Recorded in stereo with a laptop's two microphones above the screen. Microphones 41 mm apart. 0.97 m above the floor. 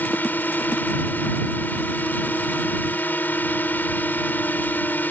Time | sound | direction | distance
0.0 | a drone | 55° left (ahead or behind) | ?